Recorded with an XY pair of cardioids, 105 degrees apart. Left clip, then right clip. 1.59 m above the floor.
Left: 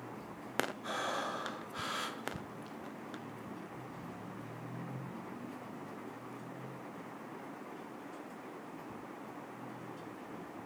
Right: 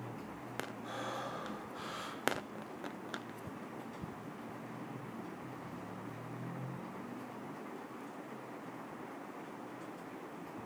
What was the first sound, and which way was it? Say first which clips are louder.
Breathing: left 4 dB; 60° left.